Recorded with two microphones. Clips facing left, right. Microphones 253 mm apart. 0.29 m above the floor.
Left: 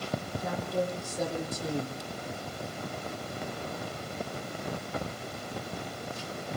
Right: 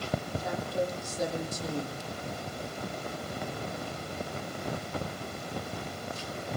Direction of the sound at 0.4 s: 60° left (ahead or behind).